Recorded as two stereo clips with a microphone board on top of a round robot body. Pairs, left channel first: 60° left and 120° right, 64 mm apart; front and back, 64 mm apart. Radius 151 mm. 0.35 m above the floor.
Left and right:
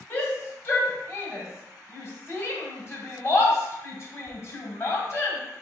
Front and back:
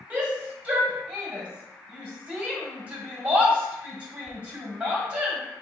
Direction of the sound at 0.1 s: 110° left.